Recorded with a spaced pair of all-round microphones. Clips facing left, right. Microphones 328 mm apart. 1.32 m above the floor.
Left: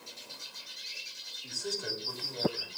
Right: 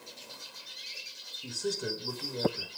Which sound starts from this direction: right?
A man speaking, at 1.4 s.